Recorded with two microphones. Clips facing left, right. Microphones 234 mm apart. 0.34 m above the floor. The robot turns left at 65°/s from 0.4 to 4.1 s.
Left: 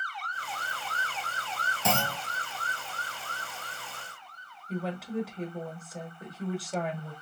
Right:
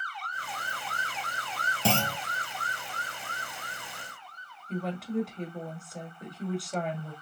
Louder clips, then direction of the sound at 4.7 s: Right 1 dB; centre (ahead or behind).